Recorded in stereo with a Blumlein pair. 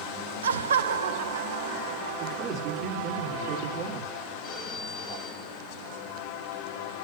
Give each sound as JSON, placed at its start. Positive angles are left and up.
{"t": 0.4, "sound": "laughter", "azimuth_deg": -70, "distance_m": 0.8}
{"t": 2.2, "sound": "a man speaking", "azimuth_deg": -30, "distance_m": 4.5}
{"t": 4.4, "sound": "a phone ringing", "azimuth_deg": 25, "distance_m": 6.0}